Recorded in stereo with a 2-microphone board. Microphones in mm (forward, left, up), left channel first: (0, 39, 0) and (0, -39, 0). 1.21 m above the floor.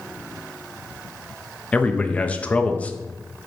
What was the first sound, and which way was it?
A man speaking, 15° left (ahead or behind).